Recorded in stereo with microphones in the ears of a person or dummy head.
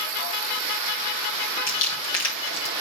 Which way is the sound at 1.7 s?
85° left.